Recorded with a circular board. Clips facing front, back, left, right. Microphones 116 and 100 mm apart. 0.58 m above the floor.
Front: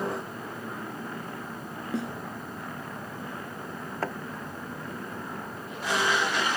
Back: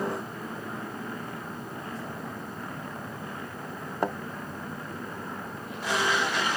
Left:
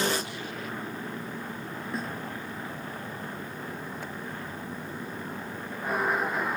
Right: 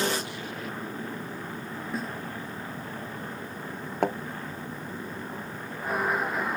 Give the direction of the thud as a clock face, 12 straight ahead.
4 o'clock.